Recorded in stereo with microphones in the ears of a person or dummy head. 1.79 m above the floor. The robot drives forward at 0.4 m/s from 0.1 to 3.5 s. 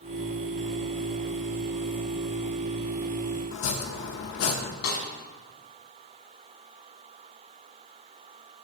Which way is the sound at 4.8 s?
80° left.